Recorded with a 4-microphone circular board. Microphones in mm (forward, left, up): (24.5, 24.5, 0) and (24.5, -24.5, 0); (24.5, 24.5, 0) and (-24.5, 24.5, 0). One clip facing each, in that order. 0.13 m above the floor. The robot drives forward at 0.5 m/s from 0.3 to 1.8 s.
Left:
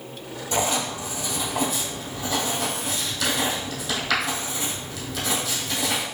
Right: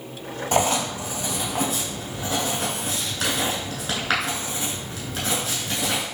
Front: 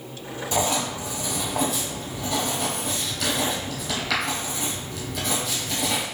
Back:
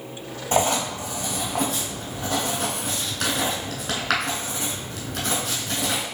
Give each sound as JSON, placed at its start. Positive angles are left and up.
{"t": 0.5, "sound": "writing", "azimuth_deg": -140, "distance_m": 1.5}